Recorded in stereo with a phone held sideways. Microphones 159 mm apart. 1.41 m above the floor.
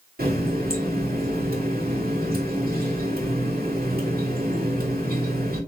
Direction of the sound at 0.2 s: 70° right (ahead or behind).